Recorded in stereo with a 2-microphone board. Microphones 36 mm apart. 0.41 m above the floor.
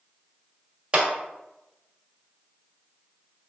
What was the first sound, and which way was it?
A clap, 25° right (ahead or behind).